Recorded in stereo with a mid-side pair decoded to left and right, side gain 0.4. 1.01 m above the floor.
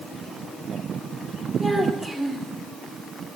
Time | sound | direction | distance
1.6 | a child speaking | straight ahead | 1.8 m